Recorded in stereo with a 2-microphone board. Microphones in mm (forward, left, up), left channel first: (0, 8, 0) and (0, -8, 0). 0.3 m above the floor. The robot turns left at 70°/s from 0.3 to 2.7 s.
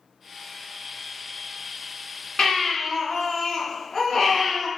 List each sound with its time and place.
2.4 s a baby crying: 55° left (ahead or behind), 1.6 m; by 4.7 s 35° left (ahead or behind), 1.6 m